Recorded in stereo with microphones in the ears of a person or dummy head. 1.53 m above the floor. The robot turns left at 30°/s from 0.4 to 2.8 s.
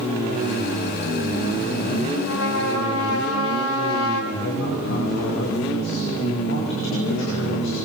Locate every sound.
2.2 s a trumpet: 75° left (ahead or behind), 3.5 m; by 4.2 s 85° left, 3.5 m
4.3 s a man speaking: 60° left (ahead or behind), 5.5 m